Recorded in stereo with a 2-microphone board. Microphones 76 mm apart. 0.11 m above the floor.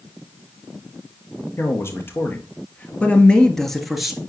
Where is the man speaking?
35° left (ahead or behind), 2 m; by 4.2 s 5° right (ahead or behind), 1.4 m.